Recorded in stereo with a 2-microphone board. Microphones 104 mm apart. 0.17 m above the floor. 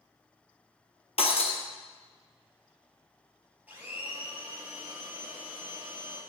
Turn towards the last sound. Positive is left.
turn(degrees=-15)  # may be behind; listen again after turning